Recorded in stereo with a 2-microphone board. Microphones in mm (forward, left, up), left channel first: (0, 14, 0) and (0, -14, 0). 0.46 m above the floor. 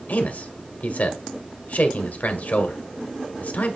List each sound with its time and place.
0.1 s a man speaking: 60° left (ahead or behind), 1.5 m